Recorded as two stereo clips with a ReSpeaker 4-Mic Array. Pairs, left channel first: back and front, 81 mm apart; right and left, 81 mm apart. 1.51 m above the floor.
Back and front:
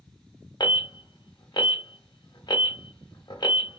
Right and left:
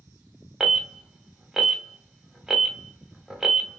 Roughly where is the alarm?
Behind.